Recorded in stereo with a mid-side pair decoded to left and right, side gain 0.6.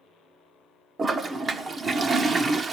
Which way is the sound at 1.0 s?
30° right.